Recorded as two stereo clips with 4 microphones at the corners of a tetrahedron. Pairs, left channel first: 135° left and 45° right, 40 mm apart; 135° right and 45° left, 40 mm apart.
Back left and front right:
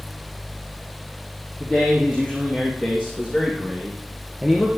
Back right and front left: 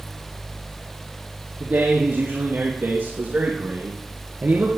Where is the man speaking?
25° left, 4.5 m; by 4.8 s 40° left, 1.9 m.